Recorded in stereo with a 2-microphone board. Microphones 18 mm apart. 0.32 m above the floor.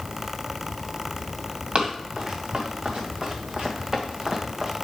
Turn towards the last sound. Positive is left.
turn(degrees=-20)  # may be behind; listen again after turning